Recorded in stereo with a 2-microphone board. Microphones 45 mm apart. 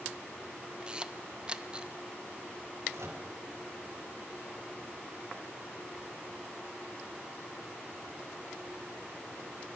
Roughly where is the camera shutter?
Centre.